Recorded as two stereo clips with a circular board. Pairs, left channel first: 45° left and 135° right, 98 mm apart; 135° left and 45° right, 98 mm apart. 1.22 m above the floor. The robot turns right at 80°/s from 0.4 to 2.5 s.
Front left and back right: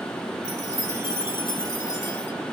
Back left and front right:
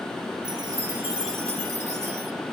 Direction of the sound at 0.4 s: 30° right.